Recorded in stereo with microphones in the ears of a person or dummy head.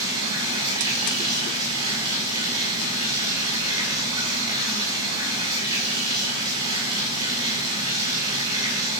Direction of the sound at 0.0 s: 20° right (ahead or behind).